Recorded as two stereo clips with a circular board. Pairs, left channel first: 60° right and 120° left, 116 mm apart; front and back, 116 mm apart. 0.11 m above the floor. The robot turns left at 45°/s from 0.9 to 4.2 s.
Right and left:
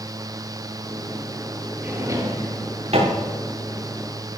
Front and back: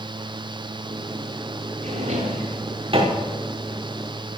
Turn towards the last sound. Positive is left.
turn(degrees=85)